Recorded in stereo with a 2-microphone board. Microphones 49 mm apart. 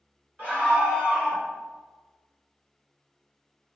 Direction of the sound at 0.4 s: 30° right (ahead or behind).